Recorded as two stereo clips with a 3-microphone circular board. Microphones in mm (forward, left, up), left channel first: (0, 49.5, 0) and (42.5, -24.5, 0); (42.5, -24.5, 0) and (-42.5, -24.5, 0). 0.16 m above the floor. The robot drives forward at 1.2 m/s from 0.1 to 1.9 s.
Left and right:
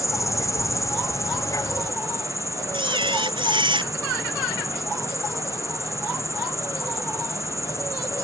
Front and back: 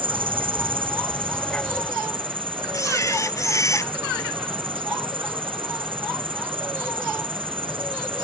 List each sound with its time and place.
0.0 s an insect: 175° left
2.7 s a camera shutter: 50° right